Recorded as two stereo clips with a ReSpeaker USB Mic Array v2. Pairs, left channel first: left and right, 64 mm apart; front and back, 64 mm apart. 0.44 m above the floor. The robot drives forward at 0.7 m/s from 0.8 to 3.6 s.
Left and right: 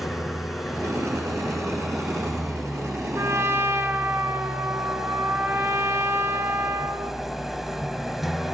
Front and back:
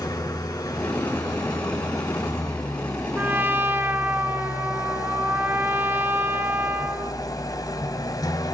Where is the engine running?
Straight ahead, 3.5 m; by 8.6 s 5° right, 1.8 m.